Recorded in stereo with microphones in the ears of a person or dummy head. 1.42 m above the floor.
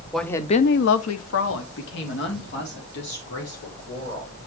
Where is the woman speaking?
Centre (ahead or behind), 0.8 m; by 4.5 s 60° left (ahead or behind), 4.5 m.